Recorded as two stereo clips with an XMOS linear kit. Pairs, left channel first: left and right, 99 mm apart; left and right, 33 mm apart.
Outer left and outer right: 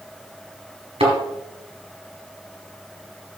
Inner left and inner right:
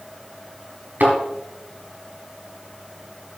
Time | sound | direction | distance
1.0 | a thud | 75° right (ahead or behind) | 3.5 m